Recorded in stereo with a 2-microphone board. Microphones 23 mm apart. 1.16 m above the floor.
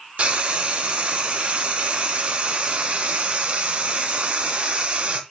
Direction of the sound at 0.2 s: 50° right (ahead or behind).